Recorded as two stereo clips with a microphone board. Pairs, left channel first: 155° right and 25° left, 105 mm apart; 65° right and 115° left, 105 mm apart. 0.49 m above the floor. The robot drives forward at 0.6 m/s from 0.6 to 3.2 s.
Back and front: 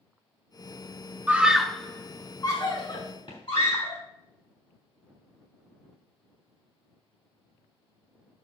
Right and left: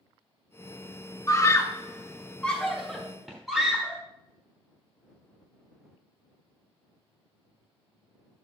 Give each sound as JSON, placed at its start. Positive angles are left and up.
{"t": 1.3, "sound": "a scream", "azimuth_deg": -40, "distance_m": 0.8}